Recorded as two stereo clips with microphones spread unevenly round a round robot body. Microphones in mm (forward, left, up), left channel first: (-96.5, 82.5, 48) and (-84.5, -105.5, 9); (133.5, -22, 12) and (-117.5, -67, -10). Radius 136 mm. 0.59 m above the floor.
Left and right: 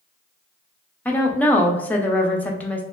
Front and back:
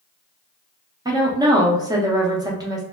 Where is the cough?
I don't hear a cough.